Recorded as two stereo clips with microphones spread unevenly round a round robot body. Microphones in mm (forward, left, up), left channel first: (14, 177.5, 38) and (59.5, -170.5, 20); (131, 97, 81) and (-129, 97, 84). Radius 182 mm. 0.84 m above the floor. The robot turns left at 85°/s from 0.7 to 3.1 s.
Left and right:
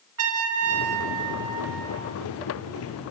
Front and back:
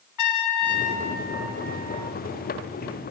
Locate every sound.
0.2 s a trumpet: 30° right, 1.7 m; by 2.1 s 150° right, 1.7 m